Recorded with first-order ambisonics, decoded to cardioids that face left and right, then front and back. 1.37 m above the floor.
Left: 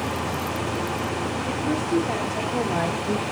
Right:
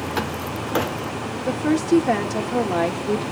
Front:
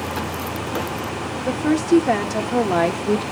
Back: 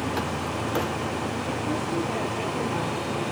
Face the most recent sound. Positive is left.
turn(degrees=-5)